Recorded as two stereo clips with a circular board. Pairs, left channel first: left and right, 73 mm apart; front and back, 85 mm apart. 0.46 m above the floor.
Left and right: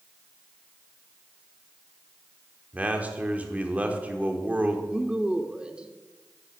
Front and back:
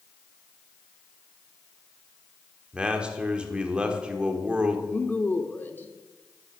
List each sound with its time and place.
2.7 s a man speaking: 120° right, 1.4 m
4.9 s a woman speaking: 30° right, 0.8 m